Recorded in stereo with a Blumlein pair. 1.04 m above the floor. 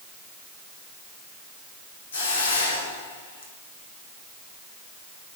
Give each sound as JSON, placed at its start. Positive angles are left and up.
{"t": 2.1, "sound": "a hiss", "azimuth_deg": 60, "distance_m": 3.0}